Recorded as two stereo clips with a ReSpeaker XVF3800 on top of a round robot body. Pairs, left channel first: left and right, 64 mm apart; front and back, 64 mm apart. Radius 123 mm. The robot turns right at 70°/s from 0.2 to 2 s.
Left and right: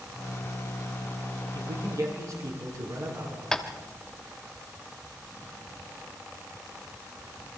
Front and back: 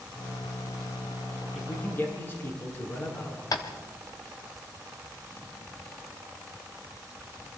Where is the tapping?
10° left, 1.6 m.